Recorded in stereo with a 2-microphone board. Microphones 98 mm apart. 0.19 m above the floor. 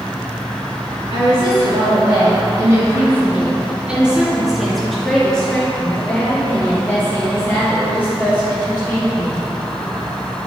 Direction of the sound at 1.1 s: 55° right (ahead or behind).